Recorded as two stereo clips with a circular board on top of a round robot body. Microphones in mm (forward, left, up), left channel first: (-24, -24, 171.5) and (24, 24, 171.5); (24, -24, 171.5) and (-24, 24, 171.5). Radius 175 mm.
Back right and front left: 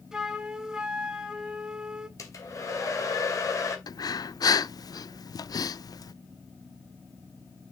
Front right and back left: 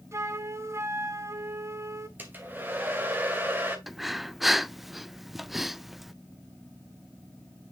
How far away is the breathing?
About 0.5 m.